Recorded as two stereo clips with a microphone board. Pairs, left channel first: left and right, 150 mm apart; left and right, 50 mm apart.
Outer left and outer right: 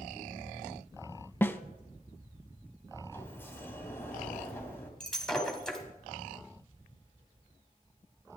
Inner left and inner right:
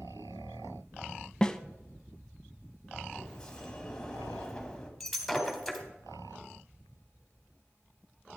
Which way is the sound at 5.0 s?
5° left (ahead or behind).